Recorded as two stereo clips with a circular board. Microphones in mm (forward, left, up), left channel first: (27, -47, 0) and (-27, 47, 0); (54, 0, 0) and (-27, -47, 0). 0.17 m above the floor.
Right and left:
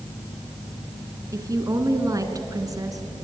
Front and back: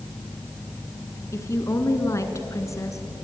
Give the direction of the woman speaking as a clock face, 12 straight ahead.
9 o'clock.